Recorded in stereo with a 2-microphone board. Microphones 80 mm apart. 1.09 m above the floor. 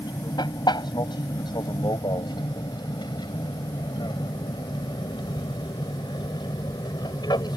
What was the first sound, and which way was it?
An aircraft, 70° left (ahead or behind).